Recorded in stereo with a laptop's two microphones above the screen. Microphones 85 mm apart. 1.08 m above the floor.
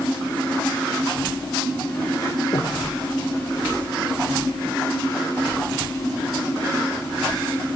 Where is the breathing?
50° left (ahead or behind), 0.8 m.